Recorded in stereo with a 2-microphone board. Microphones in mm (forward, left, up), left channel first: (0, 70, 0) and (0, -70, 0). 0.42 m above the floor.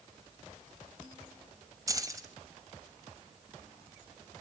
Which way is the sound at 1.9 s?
25° right (ahead or behind).